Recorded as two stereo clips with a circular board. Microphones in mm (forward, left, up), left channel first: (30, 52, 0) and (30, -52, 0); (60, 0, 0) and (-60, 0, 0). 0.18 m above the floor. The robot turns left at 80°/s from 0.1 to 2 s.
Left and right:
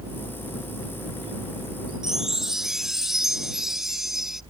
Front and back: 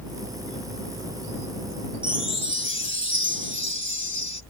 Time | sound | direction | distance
2.0 | a chime | 5° right | ?